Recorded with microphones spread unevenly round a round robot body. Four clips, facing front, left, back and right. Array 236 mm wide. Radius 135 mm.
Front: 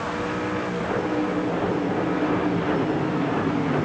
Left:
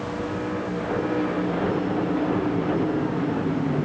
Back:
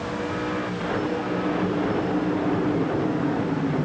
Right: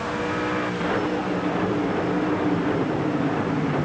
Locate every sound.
Only background noise.